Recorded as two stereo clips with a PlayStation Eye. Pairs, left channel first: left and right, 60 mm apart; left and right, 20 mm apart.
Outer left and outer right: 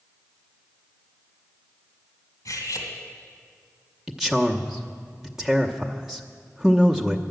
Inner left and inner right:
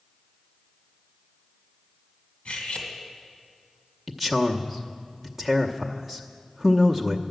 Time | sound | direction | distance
2.5 | cutlery clinking | 70° left (ahead or behind) | 2 m
4.1 | a man speaking | 5° right (ahead or behind) | 0.9 m